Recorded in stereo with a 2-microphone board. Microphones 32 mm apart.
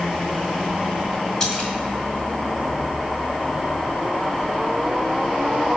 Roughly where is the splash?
Left.